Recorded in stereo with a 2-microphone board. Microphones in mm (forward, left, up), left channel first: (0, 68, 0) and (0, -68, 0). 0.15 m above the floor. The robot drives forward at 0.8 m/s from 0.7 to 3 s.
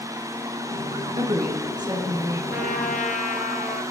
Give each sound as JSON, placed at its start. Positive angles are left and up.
{"t": 1.2, "sound": "a woman speaking", "side_deg": -40, "distance_m": 1.9}
{"t": 2.5, "sound": "a trumpet", "side_deg": 65, "distance_m": 0.6}